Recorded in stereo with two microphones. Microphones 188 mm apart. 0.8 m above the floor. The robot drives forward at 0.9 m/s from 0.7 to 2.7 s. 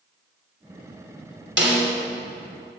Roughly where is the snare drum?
Right.